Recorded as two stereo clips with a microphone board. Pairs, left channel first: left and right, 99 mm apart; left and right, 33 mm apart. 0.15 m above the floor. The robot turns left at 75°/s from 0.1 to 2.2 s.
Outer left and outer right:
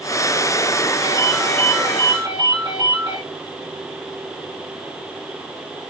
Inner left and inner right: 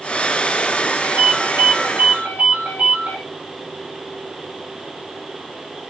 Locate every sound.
1.0 s a ringtone: 35° right, 5 m; by 3.2 s 120° right, 5 m